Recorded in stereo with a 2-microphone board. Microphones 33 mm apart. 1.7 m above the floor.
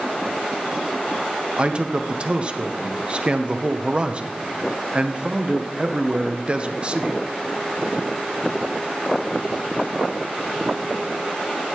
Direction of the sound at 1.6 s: 35° right (ahead or behind).